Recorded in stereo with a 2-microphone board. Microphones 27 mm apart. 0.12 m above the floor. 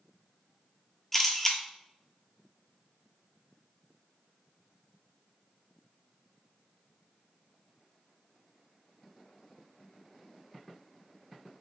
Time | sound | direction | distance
1.1 | a camera shutter | 10° left (ahead or behind) | 0.6 m